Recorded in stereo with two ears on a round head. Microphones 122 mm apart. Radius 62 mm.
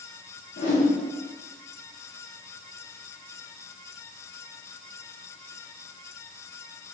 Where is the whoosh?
60° left (ahead or behind), 1.6 m.